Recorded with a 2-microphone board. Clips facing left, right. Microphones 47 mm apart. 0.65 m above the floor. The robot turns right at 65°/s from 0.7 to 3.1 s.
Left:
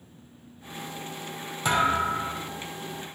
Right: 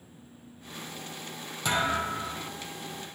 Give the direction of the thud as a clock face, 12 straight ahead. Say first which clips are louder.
Left 4 dB; 11 o'clock.